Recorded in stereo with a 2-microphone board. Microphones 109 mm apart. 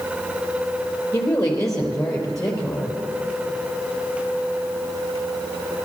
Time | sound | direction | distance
1.1 | a woman speaking | 30° left (ahead or behind) | 4 m